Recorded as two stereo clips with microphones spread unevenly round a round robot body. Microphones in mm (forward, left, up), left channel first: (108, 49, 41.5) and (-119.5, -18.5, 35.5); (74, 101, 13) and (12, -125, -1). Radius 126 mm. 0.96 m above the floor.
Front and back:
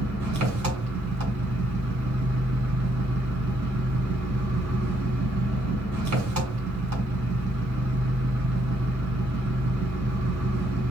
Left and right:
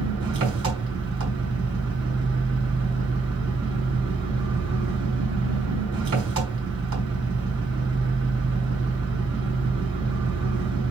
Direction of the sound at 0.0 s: 145° right.